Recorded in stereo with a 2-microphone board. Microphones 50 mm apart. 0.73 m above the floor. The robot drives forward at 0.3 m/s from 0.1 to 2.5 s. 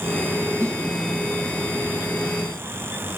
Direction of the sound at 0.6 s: 25° left (ahead or behind).